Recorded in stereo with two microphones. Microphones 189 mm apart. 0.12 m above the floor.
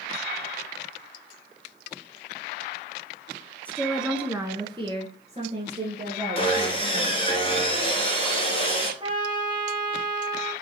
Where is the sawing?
30° left (ahead or behind), 1.8 m.